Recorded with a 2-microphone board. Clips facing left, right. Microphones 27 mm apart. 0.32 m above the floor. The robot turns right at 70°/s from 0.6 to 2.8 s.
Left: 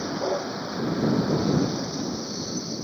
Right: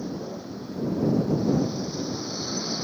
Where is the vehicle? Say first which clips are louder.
Left 7 dB; 65° left; by 2.8 s 140° right.